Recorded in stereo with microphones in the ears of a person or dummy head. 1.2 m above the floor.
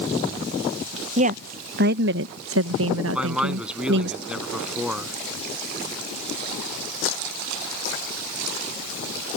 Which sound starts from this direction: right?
A woman speaking, at 1.2 s.